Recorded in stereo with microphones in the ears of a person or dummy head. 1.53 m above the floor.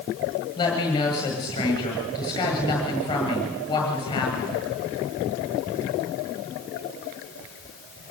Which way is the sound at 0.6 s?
25° left (ahead or behind).